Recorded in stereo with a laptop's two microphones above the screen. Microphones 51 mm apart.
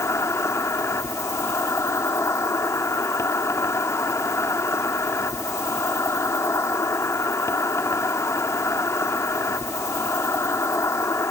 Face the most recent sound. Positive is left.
turn(degrees=75)  # may be behind; listen again after turning